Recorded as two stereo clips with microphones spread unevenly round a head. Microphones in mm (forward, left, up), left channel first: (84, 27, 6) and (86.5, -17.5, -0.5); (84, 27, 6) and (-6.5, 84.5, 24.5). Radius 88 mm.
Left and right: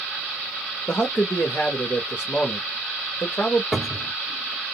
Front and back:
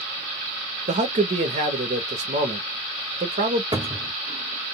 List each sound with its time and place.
0.9 s a man speaking: 165° left, 0.8 m
3.7 s a cupboard door: 175° right, 0.6 m